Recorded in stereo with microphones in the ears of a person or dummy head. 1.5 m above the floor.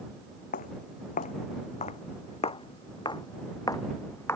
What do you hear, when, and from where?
0.5 s footsteps: 45° left (ahead or behind); by 4.4 s 10° left (ahead or behind)